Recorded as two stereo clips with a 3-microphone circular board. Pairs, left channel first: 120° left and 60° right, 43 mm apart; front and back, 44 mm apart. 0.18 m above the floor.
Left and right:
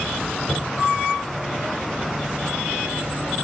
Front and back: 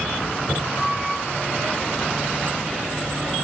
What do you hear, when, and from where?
0.5 s knocking: 80° left, 1.6 m